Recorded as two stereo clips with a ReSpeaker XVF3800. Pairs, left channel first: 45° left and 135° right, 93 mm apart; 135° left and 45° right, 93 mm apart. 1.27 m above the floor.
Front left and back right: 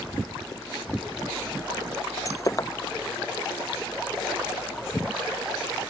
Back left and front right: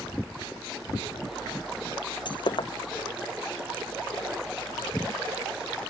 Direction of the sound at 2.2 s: 100° left.